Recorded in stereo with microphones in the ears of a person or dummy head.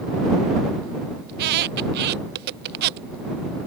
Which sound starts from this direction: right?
A squeak, at 1.3 s.